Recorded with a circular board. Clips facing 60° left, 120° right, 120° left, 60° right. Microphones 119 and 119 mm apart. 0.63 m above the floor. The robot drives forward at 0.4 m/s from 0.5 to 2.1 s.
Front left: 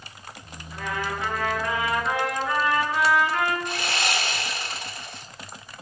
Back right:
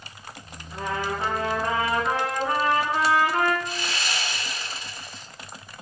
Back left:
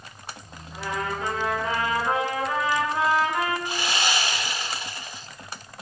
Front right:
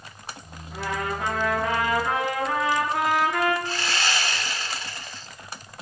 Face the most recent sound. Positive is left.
turn(degrees=45)